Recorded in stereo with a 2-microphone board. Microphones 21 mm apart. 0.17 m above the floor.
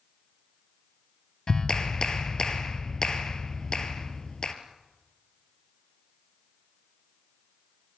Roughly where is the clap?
Left.